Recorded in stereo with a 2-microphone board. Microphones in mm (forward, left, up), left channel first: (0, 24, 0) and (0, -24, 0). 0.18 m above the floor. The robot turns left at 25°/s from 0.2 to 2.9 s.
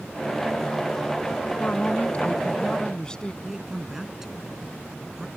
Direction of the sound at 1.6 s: 60° left.